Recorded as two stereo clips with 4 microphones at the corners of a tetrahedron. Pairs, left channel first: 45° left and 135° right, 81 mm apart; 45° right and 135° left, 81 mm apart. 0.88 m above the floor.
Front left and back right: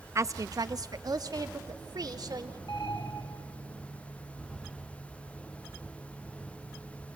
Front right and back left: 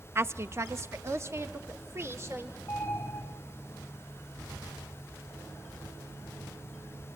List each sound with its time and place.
0.1 s a woman speaking: 175° right, 0.6 m; by 2.6 s 170° right, 2.5 m
2.7 s an alarm: 15° left, 2.5 m